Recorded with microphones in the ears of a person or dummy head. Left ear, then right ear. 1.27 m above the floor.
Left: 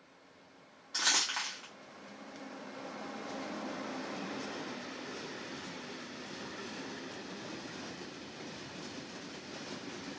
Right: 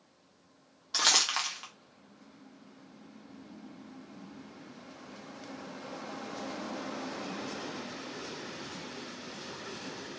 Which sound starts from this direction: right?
Crumpling, at 0.9 s.